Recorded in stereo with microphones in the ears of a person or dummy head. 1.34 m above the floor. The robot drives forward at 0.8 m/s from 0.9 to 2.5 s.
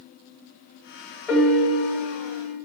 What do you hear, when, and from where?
1.3 s a piano: 5° left (ahead or behind), 1.0 m; by 2.6 s centre (ahead or behind), 2.0 m